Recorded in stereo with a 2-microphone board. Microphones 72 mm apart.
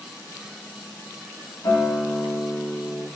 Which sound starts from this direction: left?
A guitar, at 1.6 s.